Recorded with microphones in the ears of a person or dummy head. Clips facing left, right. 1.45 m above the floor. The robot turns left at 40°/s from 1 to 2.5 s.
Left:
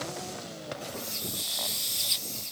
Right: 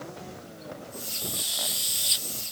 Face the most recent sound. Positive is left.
No sound to turn to.